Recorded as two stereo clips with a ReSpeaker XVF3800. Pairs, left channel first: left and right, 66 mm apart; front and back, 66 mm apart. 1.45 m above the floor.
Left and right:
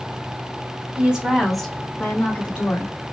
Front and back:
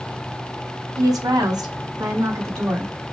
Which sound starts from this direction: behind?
A woman speaking, at 1.0 s.